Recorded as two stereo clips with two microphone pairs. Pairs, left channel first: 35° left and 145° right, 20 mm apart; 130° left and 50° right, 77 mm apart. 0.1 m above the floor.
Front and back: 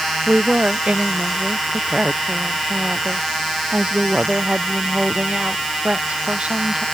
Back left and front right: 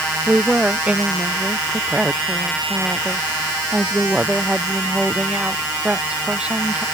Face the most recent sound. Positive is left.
turn(degrees=-125)